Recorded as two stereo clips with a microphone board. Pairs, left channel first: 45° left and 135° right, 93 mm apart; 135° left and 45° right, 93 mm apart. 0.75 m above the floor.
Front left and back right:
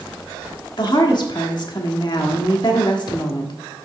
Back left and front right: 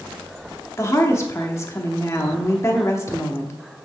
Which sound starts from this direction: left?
A woman speaking, at 0.8 s.